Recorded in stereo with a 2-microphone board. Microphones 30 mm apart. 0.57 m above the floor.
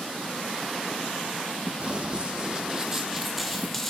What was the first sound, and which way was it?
Running footsteps, 40° right (ahead or behind).